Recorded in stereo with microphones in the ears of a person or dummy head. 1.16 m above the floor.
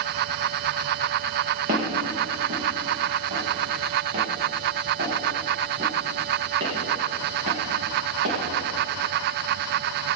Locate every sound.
1.7 s footsteps: 45° right (ahead or behind), 5 m; by 8.4 s 60° right (ahead or behind), 8 m